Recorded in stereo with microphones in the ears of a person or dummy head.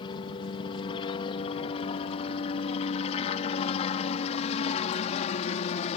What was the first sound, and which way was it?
A helicopter, 30° left (ahead or behind).